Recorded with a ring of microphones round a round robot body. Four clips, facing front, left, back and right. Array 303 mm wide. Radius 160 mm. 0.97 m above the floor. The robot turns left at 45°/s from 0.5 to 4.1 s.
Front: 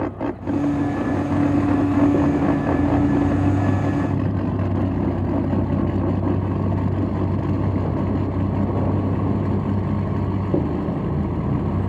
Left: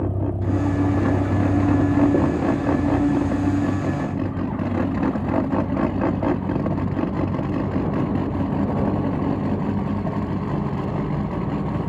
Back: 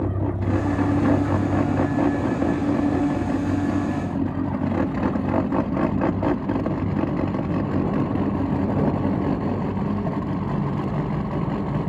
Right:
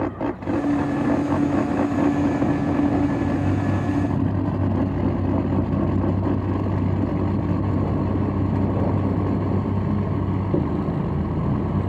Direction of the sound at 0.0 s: 125° left.